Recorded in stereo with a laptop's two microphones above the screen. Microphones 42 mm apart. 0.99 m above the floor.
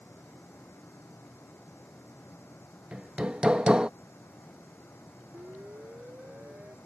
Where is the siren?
45° right (ahead or behind); by 6.8 s 40° right (ahead or behind).